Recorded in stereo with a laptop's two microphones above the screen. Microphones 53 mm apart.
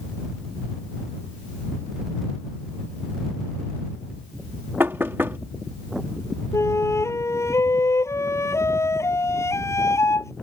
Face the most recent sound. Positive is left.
turn(degrees=70)  # may be behind; listen again after turning